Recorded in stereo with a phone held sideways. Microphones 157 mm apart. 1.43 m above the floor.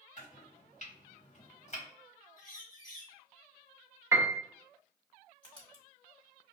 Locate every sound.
0.2 s chopping: 50° left (ahead or behind), 1.6 m
2.4 s a bird: 55° left (ahead or behind), 1.1 m
4.1 s a piano: 15° right (ahead or behind), 0.7 m
5.4 s writing: 30° left (ahead or behind), 1.8 m